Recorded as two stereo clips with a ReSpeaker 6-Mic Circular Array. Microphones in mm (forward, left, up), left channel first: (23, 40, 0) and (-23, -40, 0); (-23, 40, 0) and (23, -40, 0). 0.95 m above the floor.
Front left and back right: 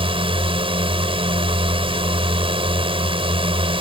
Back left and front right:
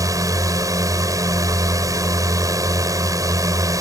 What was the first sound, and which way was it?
A drone, 110° right.